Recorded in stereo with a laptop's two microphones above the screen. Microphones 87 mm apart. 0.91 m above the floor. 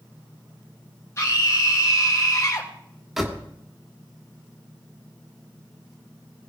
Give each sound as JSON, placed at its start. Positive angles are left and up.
{"t": 1.2, "sound": "a scream", "side_deg": 30, "distance_m": 1.4}
{"t": 3.2, "sound": "a door slam", "side_deg": 0, "distance_m": 1.5}